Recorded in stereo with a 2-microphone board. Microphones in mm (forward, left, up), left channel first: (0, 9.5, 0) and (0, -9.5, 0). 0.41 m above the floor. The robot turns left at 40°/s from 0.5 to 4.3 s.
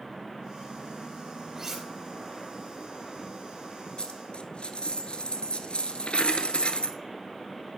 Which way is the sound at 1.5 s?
25° right (ahead or behind).